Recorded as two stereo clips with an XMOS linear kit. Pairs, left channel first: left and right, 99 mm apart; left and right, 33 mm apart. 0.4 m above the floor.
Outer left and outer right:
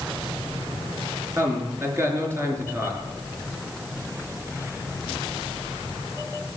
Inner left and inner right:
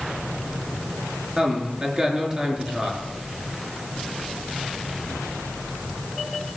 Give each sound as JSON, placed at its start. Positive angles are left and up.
{"t": 1.4, "sound": "a man speaking", "side_deg": -25, "distance_m": 5.0}